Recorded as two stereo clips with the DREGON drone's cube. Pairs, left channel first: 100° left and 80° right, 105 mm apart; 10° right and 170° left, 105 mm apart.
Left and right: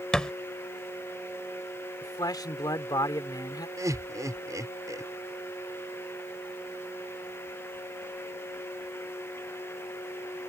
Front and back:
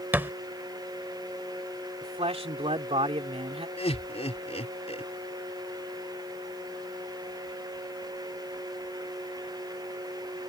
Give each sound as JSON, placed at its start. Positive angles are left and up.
{"t": 0.1, "sound": "a thud", "azimuth_deg": 165}
{"t": 2.0, "sound": "a man speaking", "azimuth_deg": 150}
{"t": 3.8, "sound": "laughter", "azimuth_deg": -20}